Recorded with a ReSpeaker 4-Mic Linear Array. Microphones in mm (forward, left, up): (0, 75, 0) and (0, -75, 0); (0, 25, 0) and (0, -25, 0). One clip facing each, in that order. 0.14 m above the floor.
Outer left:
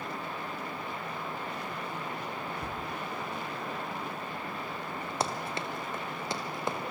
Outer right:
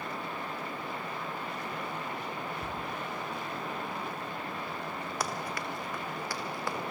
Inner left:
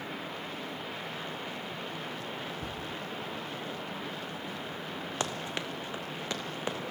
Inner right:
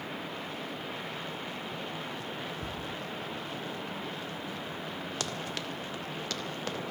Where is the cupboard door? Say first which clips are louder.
Even, even; centre (ahead or behind), 3 m.